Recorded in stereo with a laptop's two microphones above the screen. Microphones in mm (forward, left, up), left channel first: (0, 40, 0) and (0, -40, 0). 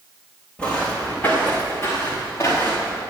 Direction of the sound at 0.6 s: 10° left (ahead or behind).